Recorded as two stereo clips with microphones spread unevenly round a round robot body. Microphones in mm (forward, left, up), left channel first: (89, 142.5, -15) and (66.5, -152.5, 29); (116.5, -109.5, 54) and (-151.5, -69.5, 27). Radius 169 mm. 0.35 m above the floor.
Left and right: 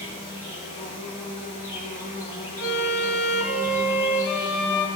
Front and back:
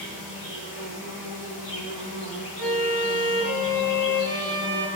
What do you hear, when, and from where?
0.0 s an insect: 20° left, 9 m
2.6 s a violin: 75° left, 2.5 m